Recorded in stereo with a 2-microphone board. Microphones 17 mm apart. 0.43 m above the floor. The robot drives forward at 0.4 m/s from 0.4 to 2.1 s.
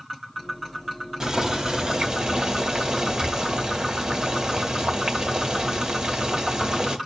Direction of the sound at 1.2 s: 45° right (ahead or behind).